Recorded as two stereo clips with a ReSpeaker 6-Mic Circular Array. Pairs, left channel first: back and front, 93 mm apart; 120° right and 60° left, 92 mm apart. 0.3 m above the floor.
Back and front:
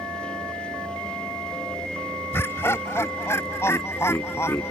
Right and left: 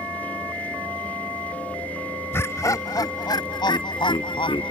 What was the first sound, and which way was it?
Laughter, 150° right.